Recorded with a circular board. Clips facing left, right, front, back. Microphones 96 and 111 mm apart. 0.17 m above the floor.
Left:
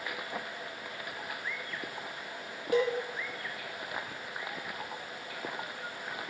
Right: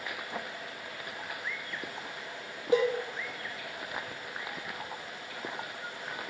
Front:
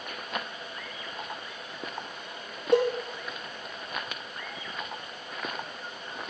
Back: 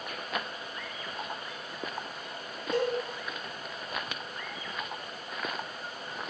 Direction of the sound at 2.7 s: 20° right.